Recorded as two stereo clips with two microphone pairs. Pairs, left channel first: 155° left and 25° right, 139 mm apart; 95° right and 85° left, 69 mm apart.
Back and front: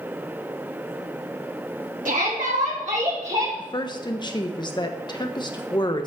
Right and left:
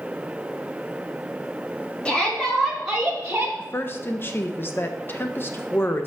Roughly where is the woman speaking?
Behind right.